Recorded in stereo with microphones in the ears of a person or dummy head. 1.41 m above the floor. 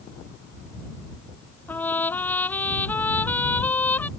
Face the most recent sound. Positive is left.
turn(degrees=15)  # may be behind; listen again after turning